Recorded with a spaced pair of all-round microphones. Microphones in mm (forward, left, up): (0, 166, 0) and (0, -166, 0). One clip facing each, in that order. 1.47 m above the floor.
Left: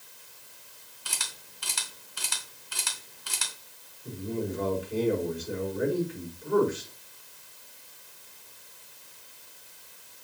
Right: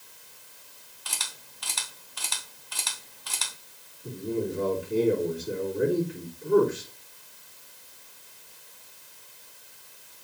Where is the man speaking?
55° right (ahead or behind), 3.5 m.